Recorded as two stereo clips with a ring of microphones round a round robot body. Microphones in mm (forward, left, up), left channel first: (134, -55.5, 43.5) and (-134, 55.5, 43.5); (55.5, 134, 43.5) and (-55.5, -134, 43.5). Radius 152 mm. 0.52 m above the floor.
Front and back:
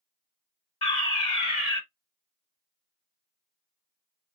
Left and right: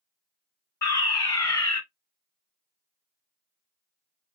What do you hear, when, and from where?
0.8 s a fire alarm: 5° left, 1.7 m